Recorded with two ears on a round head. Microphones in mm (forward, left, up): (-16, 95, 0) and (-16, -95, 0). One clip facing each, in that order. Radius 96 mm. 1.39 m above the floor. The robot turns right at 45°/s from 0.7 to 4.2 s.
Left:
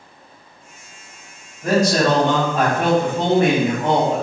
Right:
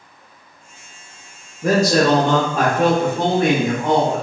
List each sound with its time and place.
1.6 s a man speaking: 75° right, 0.7 m; by 4.2 s 40° left, 0.7 m